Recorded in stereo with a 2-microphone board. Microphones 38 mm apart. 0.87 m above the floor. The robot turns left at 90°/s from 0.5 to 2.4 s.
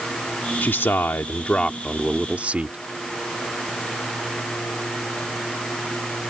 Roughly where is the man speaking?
Behind left.